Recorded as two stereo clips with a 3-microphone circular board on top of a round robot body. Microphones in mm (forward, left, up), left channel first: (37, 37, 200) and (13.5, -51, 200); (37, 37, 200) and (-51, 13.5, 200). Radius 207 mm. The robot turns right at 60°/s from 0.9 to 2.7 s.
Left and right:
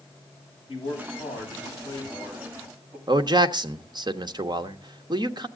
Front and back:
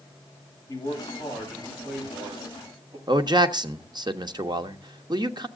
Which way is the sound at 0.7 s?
65° left.